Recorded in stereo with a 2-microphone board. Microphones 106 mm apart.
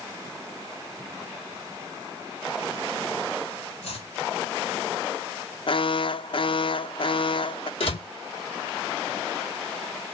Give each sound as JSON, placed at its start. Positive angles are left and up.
{"t": 3.8, "sound": "chopping", "side_deg": 80, "distance_m": 4.5}
{"t": 5.7, "sound": "an alarm", "side_deg": 55, "distance_m": 0.5}
{"t": 7.8, "sound": "a door slam", "side_deg": 65, "distance_m": 3.0}